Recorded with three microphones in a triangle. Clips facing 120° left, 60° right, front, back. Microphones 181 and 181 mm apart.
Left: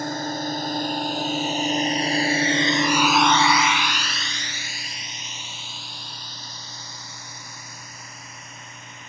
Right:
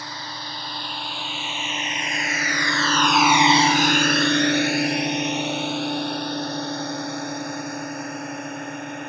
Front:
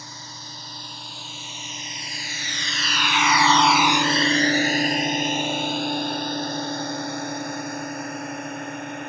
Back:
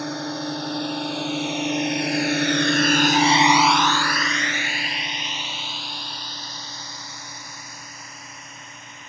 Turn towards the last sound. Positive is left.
turn(degrees=-30)